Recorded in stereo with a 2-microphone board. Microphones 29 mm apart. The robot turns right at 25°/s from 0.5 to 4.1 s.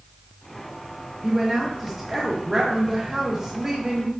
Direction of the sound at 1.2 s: 10° right (ahead or behind).